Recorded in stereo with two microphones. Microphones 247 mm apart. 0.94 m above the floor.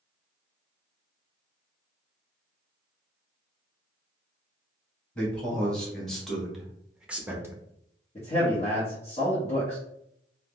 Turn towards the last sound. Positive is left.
turn(degrees=25)  # may be behind; listen again after turning